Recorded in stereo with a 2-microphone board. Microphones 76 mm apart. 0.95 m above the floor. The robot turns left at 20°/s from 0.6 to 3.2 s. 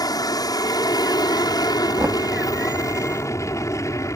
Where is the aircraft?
105° left; by 4.2 s 50° left.